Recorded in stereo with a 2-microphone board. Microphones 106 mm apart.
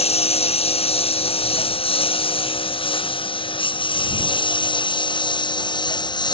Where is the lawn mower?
70° left (ahead or behind); by 6.3 s 45° left (ahead or behind).